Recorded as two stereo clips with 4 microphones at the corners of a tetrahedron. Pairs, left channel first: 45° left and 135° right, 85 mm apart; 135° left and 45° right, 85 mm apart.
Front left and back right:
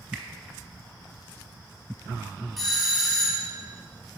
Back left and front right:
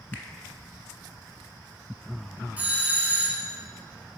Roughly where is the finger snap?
Behind.